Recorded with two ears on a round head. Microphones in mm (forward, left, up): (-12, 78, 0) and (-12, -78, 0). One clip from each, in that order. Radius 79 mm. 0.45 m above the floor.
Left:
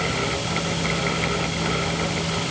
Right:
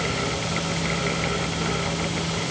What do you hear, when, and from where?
Only background noise.